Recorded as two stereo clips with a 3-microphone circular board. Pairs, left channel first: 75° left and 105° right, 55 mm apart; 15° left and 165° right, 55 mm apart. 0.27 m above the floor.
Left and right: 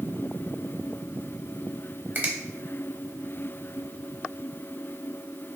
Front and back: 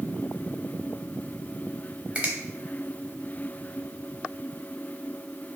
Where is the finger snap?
110° right, 0.8 m.